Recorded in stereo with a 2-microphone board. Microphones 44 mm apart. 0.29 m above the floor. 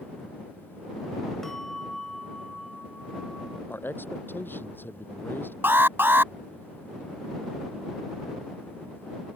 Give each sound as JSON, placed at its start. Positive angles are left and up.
{"t": 1.4, "sound": "a bell", "side_deg": 10}
{"t": 3.7, "sound": "a man speaking", "side_deg": 50}
{"t": 5.6, "sound": "an alarm", "side_deg": -55}